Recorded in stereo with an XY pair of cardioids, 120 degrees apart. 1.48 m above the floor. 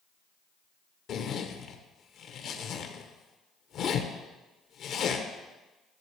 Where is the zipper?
60° left, 1.0 m.